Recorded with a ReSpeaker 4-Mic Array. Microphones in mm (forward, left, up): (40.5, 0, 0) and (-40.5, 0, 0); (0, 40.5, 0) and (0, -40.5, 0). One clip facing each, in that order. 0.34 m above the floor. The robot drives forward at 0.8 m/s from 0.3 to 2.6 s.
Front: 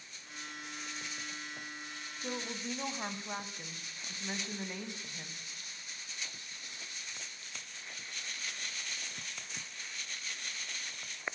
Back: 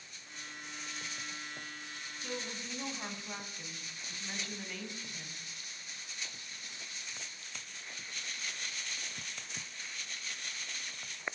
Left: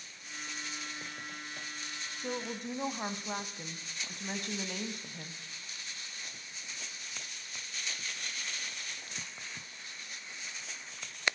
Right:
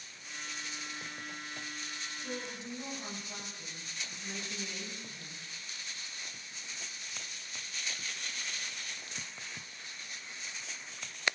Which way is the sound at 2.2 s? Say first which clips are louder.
Front 3 dB, left 5 dB; 60° left.